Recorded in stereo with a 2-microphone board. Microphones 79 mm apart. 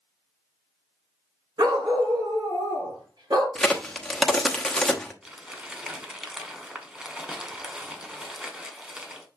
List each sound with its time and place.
1.6 s a dog barking: 60° right (ahead or behind), 1.9 m
3.5 s a crack: 5° left (ahead or behind), 1.0 m
5.2 s crumpling: 10° right (ahead or behind), 1.7 m